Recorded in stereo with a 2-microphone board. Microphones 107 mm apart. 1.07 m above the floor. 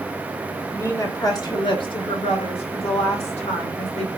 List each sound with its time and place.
0.7 s a woman speaking: 25° left (ahead or behind), 1.7 m; by 4.1 s 75° left (ahead or behind), 2.5 m